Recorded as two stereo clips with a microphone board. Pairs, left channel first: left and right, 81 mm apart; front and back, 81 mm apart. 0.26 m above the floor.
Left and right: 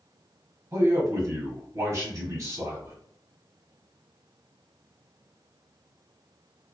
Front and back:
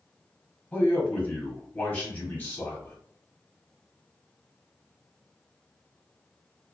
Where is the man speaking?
60° right, 1.2 m.